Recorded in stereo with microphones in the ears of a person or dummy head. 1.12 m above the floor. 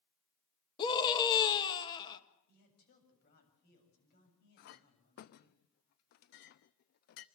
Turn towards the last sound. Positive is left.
turn(degrees=55)  # may be behind; listen again after turning